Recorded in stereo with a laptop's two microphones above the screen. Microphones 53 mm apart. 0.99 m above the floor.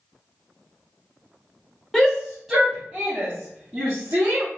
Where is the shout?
5° left (ahead or behind), 1.0 m; by 4.5 s 35° right (ahead or behind), 1.8 m.